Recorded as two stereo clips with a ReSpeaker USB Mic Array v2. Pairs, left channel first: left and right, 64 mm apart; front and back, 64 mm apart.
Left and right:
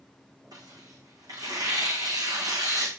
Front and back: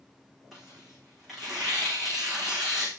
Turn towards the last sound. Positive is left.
turn(degrees=-95)